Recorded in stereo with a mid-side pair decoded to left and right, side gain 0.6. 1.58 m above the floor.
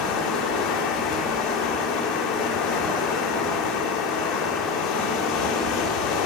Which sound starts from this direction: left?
Running water, at 0.0 s.